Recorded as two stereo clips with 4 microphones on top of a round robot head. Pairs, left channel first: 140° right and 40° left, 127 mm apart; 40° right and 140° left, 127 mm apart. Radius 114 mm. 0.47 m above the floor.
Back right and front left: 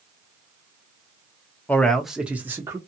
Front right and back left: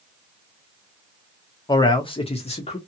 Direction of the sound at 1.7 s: 70° right.